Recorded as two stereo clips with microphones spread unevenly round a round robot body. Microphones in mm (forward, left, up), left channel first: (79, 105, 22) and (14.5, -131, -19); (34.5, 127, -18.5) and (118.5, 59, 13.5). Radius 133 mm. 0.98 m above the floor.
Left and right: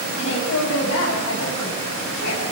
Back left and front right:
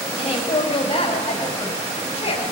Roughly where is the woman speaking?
Behind left.